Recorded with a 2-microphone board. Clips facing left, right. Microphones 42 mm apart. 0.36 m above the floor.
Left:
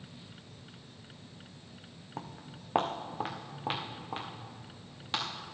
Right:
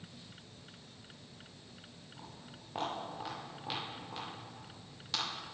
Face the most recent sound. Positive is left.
turn(degrees=30)  # may be behind; listen again after turning